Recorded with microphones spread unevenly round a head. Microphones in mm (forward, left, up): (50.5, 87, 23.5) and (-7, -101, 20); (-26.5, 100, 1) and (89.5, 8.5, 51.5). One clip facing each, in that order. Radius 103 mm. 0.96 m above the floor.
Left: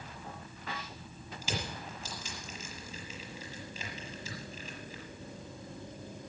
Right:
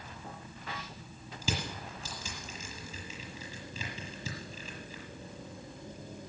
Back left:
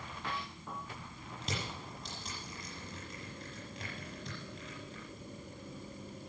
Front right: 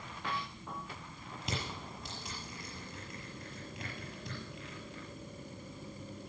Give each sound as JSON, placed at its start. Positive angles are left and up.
{"t": 1.4, "sound": "crushing", "azimuth_deg": -125, "distance_m": 6.0}